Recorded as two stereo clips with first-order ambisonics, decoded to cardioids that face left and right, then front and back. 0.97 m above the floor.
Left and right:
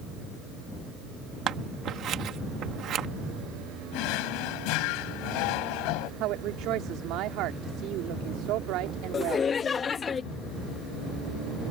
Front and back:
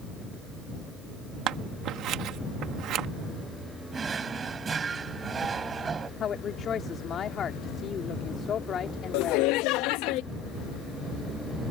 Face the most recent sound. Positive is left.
turn(degrees=20)